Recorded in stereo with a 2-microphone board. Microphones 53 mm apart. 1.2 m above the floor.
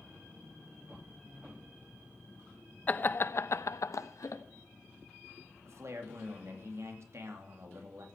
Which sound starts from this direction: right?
A man speaking, at 5.6 s.